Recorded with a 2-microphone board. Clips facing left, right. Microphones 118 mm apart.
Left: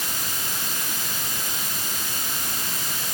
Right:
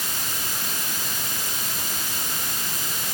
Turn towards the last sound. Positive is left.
No sound to turn to.